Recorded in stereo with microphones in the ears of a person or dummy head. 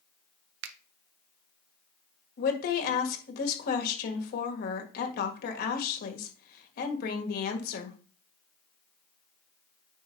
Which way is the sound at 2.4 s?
65° left (ahead or behind).